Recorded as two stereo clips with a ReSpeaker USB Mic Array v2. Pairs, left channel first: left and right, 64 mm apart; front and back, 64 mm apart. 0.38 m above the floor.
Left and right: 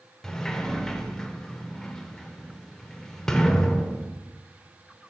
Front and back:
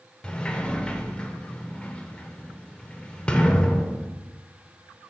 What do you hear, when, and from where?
0.2 s a sliding door: 30° left, 0.6 m